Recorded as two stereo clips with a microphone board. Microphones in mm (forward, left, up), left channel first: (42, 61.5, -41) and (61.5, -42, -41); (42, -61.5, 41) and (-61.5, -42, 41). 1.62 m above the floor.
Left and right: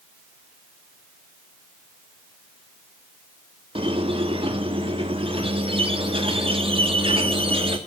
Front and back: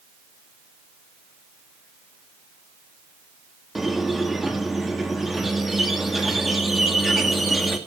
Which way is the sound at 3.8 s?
105° right.